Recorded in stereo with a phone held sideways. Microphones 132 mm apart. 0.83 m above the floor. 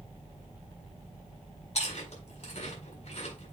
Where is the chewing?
55° left (ahead or behind), 4.5 m.